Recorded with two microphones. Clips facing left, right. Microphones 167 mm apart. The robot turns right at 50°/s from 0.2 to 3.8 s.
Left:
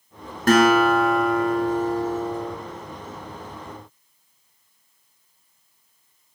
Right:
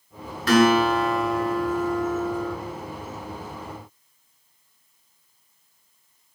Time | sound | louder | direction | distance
0.5 | a guitar | left 2 dB | 60° left | 2.5 m